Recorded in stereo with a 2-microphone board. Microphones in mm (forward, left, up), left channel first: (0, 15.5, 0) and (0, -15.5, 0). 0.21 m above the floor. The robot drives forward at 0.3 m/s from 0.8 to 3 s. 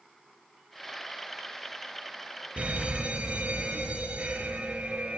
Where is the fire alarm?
45° right (ahead or behind), 6 m; by 5.2 s 40° right (ahead or behind), 6 m.